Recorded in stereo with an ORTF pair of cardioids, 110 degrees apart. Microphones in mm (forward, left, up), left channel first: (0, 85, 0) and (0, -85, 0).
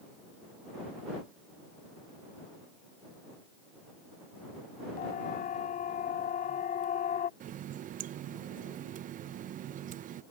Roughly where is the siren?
Ahead left.